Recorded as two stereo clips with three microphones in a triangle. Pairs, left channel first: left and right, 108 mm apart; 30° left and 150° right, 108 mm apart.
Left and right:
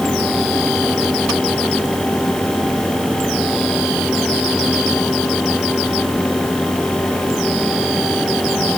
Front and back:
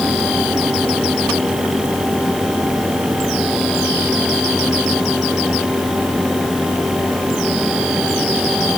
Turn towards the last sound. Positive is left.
No sound to turn to.